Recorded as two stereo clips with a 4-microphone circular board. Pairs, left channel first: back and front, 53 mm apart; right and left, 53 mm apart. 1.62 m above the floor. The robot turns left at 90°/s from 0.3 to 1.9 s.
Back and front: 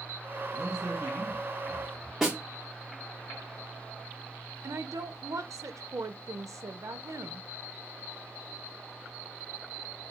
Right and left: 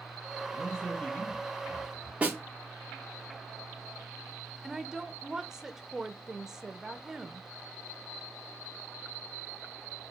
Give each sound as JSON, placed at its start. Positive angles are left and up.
{"t": 0.5, "sound": "a man speaking", "azimuth_deg": 10, "distance_m": 2.5}
{"t": 2.2, "sound": "a snare drum", "azimuth_deg": 80, "distance_m": 1.3}
{"t": 4.6, "sound": "a woman speaking", "azimuth_deg": 10, "distance_m": 0.5}